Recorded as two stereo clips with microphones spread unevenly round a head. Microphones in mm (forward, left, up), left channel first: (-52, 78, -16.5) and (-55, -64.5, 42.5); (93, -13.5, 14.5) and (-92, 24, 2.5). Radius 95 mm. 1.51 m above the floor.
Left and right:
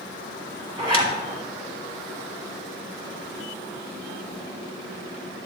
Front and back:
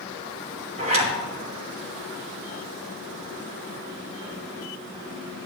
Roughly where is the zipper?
Behind right.